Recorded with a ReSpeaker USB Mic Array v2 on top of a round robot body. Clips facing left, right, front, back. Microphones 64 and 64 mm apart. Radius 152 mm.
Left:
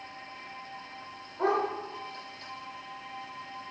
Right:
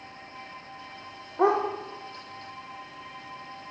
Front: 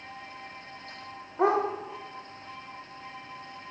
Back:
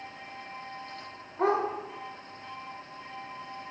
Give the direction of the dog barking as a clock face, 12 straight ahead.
2 o'clock.